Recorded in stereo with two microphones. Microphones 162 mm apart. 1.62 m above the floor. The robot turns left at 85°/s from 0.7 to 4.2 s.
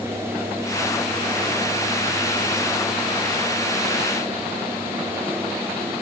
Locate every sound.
Only background noise.